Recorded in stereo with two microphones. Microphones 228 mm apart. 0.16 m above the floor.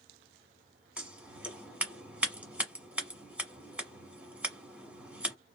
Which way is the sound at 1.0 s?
5° right (ahead or behind).